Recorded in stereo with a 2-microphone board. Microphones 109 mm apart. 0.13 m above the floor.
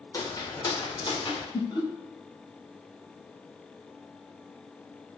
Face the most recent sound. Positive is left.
turn(degrees=35)  # may be behind; listen again after turning